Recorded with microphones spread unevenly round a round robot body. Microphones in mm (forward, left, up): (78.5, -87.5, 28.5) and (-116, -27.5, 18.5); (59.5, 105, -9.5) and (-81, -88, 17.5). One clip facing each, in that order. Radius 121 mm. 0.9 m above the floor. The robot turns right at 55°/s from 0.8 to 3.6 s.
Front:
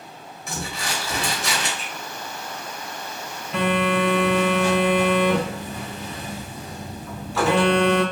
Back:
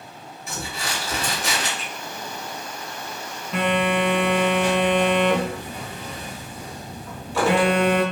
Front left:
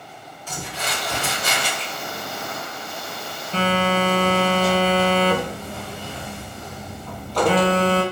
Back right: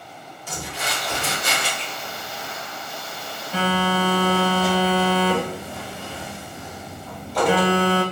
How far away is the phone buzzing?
About 1.0 m.